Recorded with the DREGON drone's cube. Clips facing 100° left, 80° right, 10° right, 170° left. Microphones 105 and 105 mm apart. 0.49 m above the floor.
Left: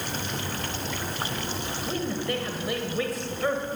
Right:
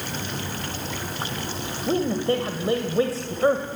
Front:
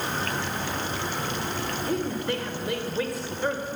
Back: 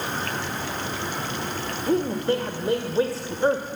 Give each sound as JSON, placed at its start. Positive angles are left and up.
{"t": 1.9, "sound": "a man speaking", "azimuth_deg": -135, "distance_m": 1.9}